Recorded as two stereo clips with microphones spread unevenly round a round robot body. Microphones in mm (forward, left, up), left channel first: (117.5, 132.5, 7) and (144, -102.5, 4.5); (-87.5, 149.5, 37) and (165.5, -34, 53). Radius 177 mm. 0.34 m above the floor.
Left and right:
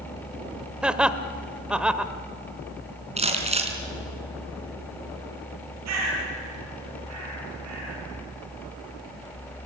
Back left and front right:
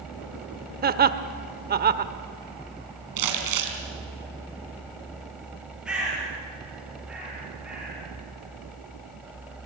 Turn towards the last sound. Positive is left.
turn(degrees=-125)